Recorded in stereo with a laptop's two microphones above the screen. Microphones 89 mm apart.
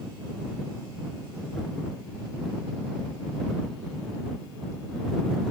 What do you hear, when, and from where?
Only background noise.